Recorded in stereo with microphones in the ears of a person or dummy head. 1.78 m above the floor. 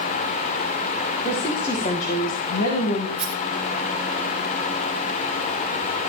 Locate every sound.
1.2 s a woman speaking: 30° left (ahead or behind), 2.5 m; by 3.1 s 60° left (ahead or behind), 2 m
3.2 s a rattle: centre (ahead or behind), 1.5 m